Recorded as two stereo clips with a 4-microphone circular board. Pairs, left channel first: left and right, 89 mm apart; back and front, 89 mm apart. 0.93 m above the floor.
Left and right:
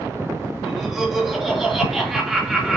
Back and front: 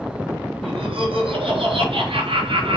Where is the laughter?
5° right, 3 m.